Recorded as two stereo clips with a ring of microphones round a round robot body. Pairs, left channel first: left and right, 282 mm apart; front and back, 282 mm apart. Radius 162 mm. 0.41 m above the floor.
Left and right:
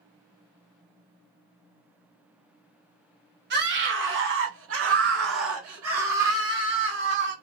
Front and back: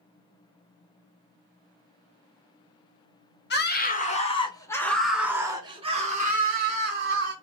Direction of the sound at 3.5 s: 45° right.